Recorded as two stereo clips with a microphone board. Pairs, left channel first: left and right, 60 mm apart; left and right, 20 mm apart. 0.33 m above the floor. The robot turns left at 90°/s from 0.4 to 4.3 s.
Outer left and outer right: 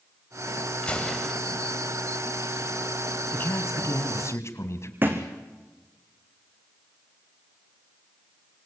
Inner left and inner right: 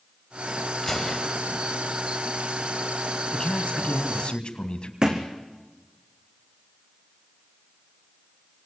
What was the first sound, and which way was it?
A gunshot, 35° left.